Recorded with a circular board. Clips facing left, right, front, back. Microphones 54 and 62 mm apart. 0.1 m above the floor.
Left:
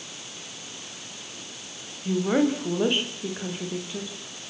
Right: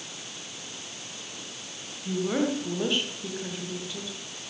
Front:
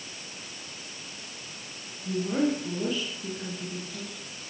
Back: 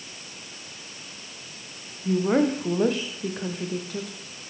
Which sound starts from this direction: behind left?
A woman speaking, at 2.0 s.